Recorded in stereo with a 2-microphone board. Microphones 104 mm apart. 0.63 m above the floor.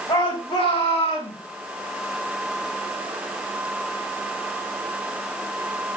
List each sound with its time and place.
0.1 s a shout: 50° left (ahead or behind), 4 m; by 1.4 s 65° left (ahead or behind), 5 m